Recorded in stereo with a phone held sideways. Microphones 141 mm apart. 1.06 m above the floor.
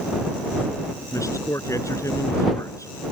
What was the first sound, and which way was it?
A man speaking, 25° left (ahead or behind).